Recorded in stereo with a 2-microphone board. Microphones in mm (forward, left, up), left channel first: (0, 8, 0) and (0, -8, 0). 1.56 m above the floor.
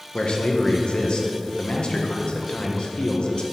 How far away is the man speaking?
About 1.0 m.